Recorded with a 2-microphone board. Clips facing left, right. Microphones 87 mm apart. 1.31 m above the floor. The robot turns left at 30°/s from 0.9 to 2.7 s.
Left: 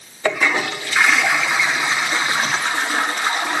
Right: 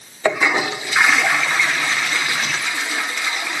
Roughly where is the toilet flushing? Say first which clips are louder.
Right 1 dB; behind.